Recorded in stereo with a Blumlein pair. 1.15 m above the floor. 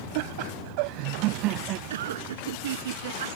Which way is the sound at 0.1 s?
50° right.